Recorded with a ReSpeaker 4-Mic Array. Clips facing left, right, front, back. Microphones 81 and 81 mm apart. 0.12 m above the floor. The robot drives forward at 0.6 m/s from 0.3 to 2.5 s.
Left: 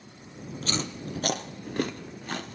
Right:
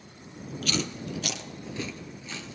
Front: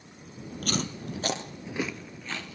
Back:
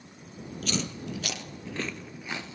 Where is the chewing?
35° left, 1.1 m; by 2.6 s 115° left, 0.7 m.